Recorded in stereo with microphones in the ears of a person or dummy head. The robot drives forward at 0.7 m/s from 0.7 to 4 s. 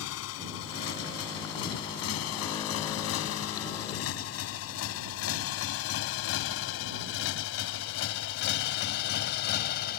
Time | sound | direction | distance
0.0 | a motorcycle | 80° left | ?